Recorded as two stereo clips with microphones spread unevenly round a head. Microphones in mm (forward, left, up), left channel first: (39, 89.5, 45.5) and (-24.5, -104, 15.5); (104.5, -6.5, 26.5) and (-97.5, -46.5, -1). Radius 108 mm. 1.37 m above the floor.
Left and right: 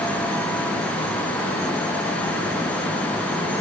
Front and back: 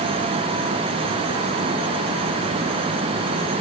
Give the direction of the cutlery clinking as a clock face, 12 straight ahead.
I don't hear cutlery clinking.